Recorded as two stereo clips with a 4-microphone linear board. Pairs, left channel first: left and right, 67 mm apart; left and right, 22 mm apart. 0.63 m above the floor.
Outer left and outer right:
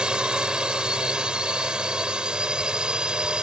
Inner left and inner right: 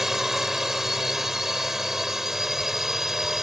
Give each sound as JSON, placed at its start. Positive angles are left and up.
{"t": 0.0, "sound": "a drone", "side_deg": -15}